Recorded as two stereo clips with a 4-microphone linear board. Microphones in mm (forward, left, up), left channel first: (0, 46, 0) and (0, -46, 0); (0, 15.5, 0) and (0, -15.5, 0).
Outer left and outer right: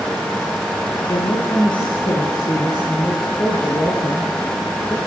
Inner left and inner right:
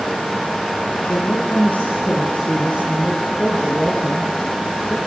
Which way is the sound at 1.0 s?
60° left (ahead or behind).